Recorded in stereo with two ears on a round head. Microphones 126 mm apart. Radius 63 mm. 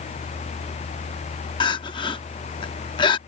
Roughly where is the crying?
Left.